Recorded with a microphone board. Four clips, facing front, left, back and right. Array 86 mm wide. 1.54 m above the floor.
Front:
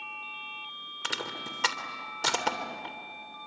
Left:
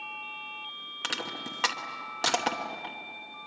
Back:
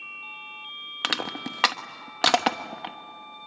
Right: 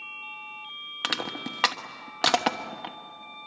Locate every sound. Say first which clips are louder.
1.0 s crushing: right 4 dB, back 6 dB; 155° right, 1.3 m